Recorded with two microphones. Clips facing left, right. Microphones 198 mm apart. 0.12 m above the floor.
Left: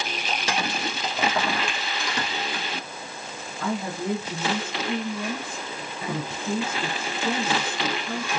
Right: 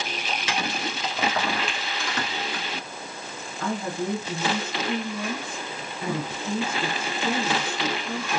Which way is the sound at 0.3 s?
45° left (ahead or behind).